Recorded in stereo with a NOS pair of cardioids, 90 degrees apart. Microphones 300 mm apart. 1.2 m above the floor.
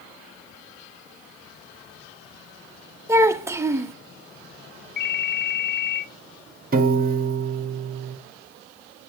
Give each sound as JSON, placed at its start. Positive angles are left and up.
{"t": 3.1, "sound": "a child speaking", "azimuth_deg": -10, "distance_m": 1.0}
{"t": 5.0, "sound": "a ringtone", "azimuth_deg": 35, "distance_m": 0.6}
{"t": 6.7, "sound": "a piano", "azimuth_deg": -30, "distance_m": 1.4}